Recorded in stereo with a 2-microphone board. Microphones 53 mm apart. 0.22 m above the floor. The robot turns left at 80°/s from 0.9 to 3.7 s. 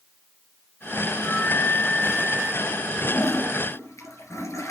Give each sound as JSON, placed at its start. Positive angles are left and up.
{"t": 1.2, "sound": "a flute", "azimuth_deg": 75, "distance_m": 1.4}
{"t": 3.1, "sound": "a toilet flushing", "azimuth_deg": 125, "distance_m": 2.5}